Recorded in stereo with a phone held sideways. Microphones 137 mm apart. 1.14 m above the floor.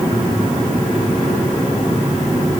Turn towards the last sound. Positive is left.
No sound to turn to.